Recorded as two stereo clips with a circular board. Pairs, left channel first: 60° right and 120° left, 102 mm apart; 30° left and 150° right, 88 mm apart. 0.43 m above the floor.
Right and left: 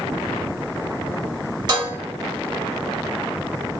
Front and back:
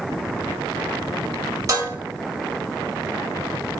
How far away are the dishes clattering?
About 1.5 m.